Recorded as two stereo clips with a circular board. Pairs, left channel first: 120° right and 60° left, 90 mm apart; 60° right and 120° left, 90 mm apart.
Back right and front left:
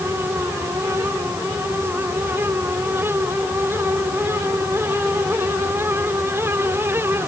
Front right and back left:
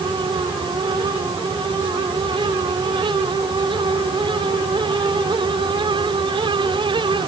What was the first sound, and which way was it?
Only background noise.